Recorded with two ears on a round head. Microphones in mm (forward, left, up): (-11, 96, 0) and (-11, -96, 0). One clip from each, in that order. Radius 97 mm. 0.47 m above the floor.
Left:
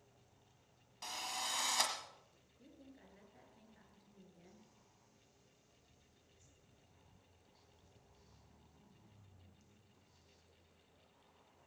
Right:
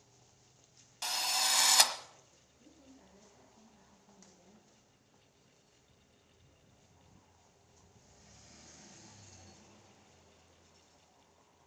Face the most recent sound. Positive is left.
turn(degrees=50)  # may be behind; listen again after turning